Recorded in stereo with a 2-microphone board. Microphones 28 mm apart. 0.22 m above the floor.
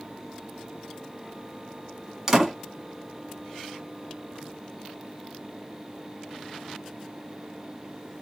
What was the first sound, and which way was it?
A door slam, 20° right (ahead or behind).